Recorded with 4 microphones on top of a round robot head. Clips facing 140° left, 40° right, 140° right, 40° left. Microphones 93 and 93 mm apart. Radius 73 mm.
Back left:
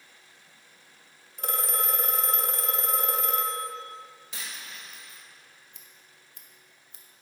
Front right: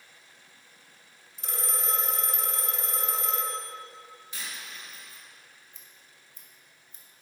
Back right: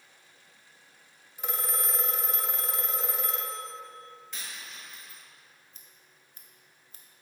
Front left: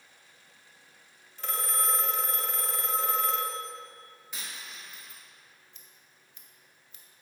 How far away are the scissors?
About 0.7 m.